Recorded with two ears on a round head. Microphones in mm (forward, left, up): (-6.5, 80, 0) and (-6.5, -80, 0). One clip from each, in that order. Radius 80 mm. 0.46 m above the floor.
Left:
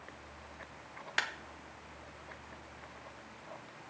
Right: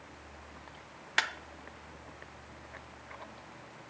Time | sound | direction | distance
1.2 | a clap | 10° right (ahead or behind) | 0.7 m